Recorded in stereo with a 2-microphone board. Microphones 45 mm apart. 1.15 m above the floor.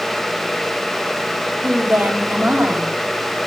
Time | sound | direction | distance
1.6 | a woman speaking | 35° right (ahead or behind) | 5.5 m